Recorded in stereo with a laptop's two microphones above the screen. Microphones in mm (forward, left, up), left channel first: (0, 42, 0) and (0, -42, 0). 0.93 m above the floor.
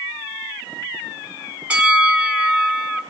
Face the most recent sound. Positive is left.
turn(degrees=-15)  # may be behind; listen again after turning